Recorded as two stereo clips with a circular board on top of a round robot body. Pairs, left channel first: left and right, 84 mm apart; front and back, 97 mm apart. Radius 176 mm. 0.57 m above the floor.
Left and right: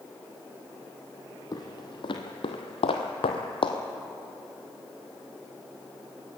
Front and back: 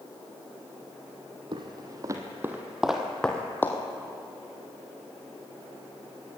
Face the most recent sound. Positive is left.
turn(degrees=70)